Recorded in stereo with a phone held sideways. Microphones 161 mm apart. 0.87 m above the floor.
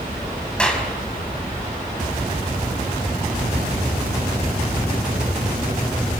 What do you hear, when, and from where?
0.6 s a clap: 5° left (ahead or behind), 4.5 m